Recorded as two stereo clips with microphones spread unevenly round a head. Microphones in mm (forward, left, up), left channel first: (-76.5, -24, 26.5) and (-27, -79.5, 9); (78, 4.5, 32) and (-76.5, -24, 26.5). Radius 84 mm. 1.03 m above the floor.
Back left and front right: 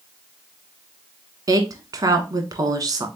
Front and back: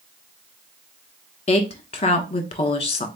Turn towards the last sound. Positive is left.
turn(degrees=-40)